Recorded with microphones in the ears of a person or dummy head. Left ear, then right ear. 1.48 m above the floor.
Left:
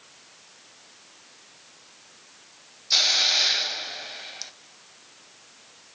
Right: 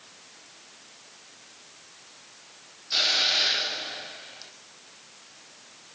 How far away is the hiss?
About 0.9 m.